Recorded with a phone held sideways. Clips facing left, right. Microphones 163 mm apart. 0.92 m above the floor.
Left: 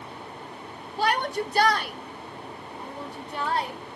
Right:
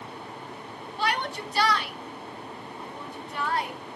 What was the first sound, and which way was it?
A shout, 40° left (ahead or behind).